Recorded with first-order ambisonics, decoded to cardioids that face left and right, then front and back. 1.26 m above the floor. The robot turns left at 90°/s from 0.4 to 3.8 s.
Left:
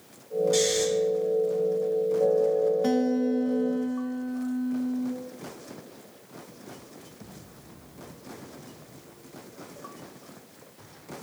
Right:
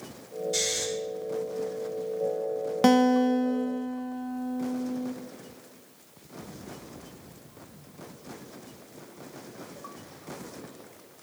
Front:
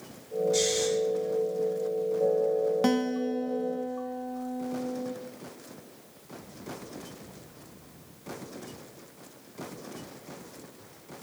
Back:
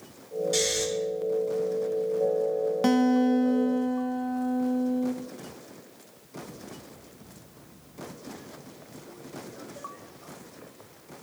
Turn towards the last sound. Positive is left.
turn(degrees=180)